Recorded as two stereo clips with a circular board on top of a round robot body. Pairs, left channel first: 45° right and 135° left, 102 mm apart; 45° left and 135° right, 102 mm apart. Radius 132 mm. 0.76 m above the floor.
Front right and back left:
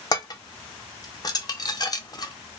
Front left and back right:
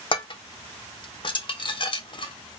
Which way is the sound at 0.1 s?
5° left.